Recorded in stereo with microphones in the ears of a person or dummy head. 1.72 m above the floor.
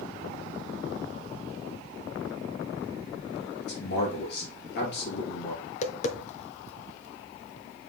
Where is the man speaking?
70° left (ahead or behind), 2.5 m.